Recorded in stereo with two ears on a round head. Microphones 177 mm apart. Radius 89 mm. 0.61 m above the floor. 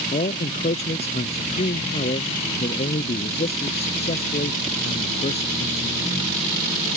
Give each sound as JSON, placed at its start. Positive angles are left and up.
{"t": 0.1, "sound": "a man speaking", "side_deg": 35}